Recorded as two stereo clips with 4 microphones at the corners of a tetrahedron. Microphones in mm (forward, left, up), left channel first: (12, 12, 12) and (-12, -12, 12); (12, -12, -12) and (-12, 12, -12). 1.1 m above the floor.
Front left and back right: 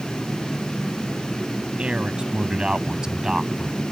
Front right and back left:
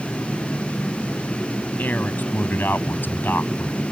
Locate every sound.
1.8 s a man speaking: 80° right; by 3.8 s 60° right